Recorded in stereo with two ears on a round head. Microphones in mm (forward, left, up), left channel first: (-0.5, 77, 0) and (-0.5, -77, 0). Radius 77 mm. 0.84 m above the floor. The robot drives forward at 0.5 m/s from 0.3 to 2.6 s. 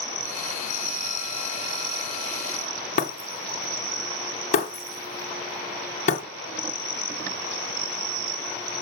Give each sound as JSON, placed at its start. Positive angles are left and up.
{"t": 3.0, "sound": "breaking glass", "side_deg": 40, "distance_m": 3.0}